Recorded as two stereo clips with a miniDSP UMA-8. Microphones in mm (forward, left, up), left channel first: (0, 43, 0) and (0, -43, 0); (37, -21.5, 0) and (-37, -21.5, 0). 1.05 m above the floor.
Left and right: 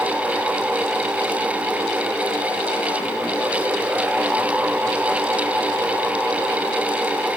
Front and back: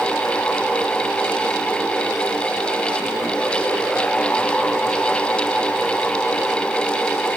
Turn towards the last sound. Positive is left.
No sound to turn to.